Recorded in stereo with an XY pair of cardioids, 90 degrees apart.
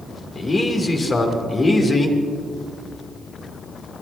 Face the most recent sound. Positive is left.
turn(degrees=35)